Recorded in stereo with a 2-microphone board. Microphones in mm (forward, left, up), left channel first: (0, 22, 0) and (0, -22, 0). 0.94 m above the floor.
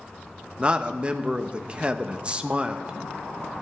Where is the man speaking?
25° right (ahead or behind), 0.8 m.